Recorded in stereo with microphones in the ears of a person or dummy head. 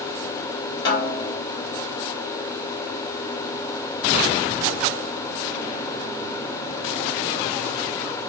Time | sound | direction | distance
0.8 | a snare drum | 25° left (ahead or behind) | 1.1 m